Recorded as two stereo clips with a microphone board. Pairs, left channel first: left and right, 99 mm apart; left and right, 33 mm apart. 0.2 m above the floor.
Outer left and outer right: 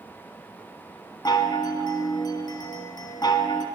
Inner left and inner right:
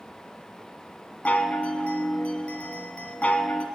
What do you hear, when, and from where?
1.2 s a chime: 45° left (ahead or behind), 1.0 m